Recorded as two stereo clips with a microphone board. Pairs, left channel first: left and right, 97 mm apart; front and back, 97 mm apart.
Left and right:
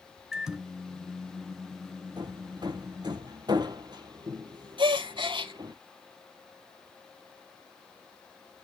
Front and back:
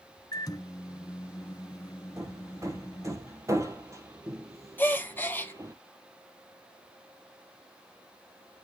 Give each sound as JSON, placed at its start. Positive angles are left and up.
{"t": 0.3, "sound": "a microwave", "azimuth_deg": -10, "distance_m": 1.2}
{"t": 2.2, "sound": "hammering", "azimuth_deg": -125, "distance_m": 1.6}
{"t": 4.8, "sound": "a gasp", "azimuth_deg": -70, "distance_m": 1.6}